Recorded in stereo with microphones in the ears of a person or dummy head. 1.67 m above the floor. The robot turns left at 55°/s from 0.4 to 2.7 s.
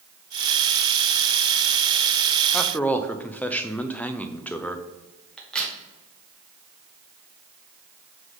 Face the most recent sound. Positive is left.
turn(degrees=5)  # may be behind; listen again after turning